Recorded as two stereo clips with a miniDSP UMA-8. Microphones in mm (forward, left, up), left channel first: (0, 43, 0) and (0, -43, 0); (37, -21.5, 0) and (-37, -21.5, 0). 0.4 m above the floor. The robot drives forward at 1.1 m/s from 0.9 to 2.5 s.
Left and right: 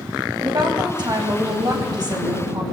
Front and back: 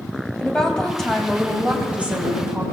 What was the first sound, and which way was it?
A woman speaking, 80° right.